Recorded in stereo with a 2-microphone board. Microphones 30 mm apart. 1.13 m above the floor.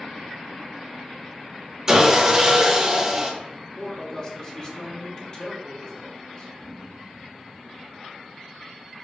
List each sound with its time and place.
1.9 s sawing: 25° right (ahead or behind), 0.8 m
3.8 s a man speaking: 30° left (ahead or behind), 0.8 m